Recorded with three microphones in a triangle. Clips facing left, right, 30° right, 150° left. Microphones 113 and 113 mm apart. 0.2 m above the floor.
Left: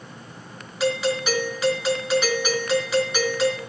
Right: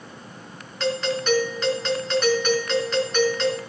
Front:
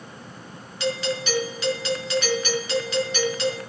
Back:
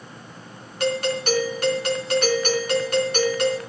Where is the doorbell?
170° left, 4 m.